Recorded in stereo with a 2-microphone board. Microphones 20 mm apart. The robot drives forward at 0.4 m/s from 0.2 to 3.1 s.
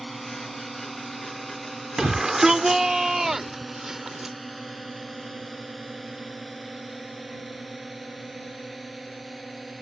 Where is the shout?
25° right (ahead or behind); by 4.4 s 20° right (ahead or behind).